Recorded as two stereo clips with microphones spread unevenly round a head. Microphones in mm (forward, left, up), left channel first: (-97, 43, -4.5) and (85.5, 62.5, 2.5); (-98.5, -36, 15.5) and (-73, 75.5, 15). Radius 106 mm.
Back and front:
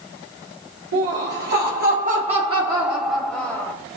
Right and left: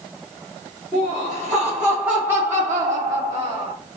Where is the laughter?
15° right, 1.1 m; by 3.7 s 120° left, 0.9 m.